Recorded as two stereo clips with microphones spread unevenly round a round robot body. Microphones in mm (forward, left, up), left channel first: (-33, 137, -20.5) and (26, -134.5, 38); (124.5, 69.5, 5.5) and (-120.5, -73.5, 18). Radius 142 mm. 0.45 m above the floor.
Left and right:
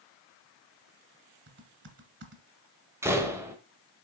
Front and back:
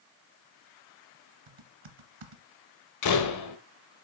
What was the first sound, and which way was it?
Typing on a keyboard, 130° right.